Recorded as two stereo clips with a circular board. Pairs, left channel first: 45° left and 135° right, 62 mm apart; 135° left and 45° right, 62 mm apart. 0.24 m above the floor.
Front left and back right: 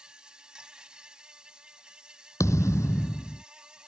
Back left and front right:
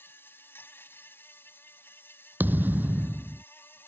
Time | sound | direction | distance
0.0 | an insect | 160° left | ?
2.4 | a thud | 15° left | ?